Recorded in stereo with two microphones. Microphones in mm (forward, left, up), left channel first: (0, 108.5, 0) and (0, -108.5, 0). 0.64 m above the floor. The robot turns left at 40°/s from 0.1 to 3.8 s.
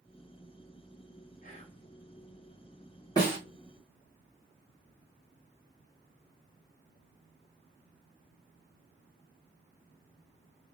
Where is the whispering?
40° left (ahead or behind), 1.1 m; by 1.8 s 30° left (ahead or behind), 1.1 m.